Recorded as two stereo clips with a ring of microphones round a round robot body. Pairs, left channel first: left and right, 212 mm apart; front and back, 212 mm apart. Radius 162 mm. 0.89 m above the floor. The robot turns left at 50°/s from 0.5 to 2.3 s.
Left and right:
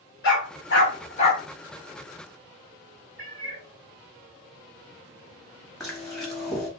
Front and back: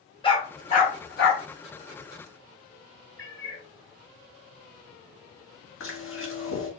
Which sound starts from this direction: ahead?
Chewing, at 5.8 s.